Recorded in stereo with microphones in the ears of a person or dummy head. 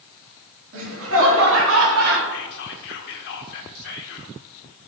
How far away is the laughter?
About 3.5 m.